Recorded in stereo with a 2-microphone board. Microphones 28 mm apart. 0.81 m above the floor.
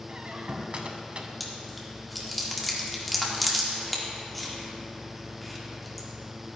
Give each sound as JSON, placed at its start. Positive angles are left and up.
{"t": 0.1, "sound": "a squeak", "side_deg": -45, "distance_m": 0.9}
{"t": 1.4, "sound": "chewing", "side_deg": 5, "distance_m": 1.5}